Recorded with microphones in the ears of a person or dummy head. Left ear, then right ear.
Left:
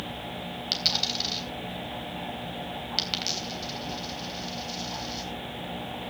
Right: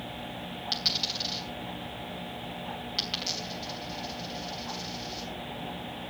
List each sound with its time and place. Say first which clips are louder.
0.7 s a dropped coin: left 3 dB; 10° left (ahead or behind), 3.5 m